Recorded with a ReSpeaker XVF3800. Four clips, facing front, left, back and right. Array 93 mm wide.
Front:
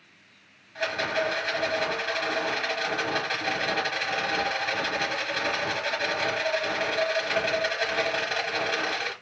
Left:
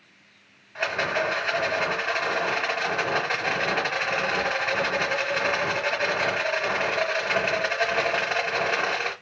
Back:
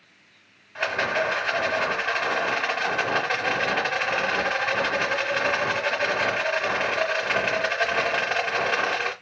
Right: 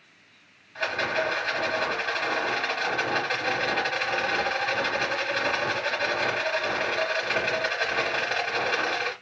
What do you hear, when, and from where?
0.8 s a rattle: 145° left, 1.2 m